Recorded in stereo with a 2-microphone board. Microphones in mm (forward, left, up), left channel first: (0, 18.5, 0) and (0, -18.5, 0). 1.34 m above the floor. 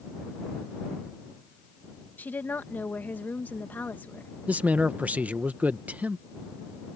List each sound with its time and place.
2.2 s a woman speaking: 55° left (ahead or behind)
4.5 s a man speaking: 45° right (ahead or behind)